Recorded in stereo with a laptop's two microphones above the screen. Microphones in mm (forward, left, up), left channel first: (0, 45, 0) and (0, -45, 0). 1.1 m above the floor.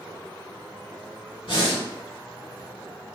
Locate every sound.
1.4 s breathing: 80° left, 1.6 m